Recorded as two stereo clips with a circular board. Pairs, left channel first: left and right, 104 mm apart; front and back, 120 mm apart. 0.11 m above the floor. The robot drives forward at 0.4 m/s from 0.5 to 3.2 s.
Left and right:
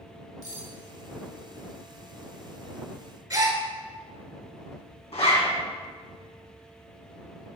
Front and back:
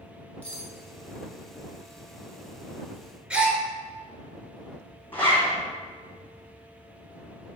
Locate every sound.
0.4 s cutlery clinking: 70° right, 0.8 m; by 0.7 s 80° right, 0.8 m
3.3 s a gasp: 105° right, 0.6 m
5.1 s a zipper: 75° left, 1.4 m